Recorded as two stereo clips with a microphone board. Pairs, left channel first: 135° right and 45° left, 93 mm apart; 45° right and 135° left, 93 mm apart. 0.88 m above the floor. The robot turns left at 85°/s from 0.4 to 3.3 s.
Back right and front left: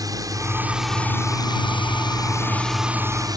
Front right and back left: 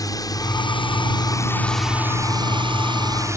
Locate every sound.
0.0 s a drone: straight ahead; by 3.4 s 80° left